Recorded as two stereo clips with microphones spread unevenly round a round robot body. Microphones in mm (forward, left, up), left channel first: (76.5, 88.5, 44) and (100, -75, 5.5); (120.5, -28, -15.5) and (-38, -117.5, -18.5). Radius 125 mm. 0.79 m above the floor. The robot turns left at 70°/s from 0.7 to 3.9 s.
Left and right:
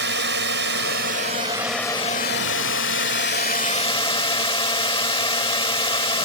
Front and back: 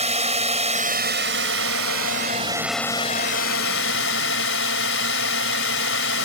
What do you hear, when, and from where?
0.0 s a drone: 100° right; by 6.2 s 40° left